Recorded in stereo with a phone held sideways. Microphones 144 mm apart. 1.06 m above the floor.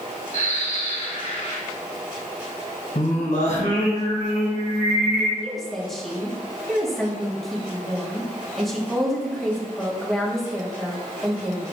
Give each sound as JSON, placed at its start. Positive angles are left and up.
{"t": 0.3, "sound": "a bird", "side_deg": 65, "distance_m": 1.6}
{"t": 3.0, "sound": "singing", "side_deg": 65, "distance_m": 2.0}
{"t": 5.4, "sound": "a woman speaking", "side_deg": 0, "distance_m": 1.2}